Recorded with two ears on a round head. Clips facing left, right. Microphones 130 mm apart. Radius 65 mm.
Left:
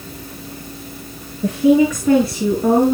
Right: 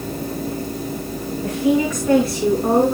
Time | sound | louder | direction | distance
1.4 | a woman speaking | left 5 dB | 75° left (ahead or behind) | 6 m